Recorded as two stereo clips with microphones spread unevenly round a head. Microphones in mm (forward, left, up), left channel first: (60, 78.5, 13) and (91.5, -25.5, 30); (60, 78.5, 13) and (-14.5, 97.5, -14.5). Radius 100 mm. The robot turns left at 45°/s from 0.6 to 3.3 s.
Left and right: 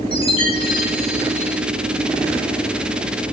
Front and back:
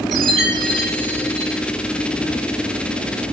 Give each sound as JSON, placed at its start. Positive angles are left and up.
{"t": 0.1, "sound": "a chime", "azimuth_deg": 75, "distance_m": 5.5}